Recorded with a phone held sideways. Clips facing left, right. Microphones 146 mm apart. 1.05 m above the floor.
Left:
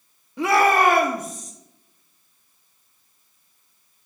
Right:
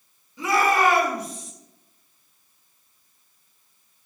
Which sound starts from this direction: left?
A shout, at 0.4 s.